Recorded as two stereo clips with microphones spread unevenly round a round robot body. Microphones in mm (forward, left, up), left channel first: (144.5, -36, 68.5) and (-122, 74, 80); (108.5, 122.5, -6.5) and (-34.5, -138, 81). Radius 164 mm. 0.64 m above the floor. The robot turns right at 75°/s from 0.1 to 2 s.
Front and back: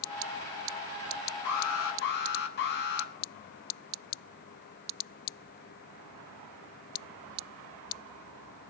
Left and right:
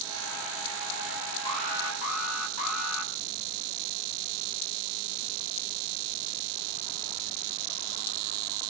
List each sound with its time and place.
1.4 s an alarm: 10° right, 5.5 m; by 3.1 s 30° left, 5.5 m